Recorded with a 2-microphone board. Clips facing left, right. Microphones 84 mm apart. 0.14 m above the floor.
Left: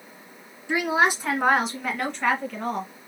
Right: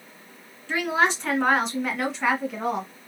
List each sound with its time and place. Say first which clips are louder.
0.7 s a woman speaking: left 1 dB; 15° left (ahead or behind), 2 m; by 2.9 s 20° right (ahead or behind), 1.6 m